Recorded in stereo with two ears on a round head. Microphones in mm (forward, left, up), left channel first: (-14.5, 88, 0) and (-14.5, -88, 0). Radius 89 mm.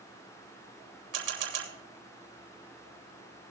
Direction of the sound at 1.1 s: 65° right (ahead or behind).